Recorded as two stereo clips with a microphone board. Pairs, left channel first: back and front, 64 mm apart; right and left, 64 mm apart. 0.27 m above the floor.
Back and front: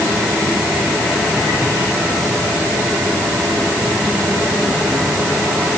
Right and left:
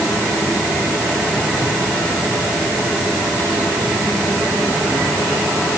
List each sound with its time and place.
Only background noise.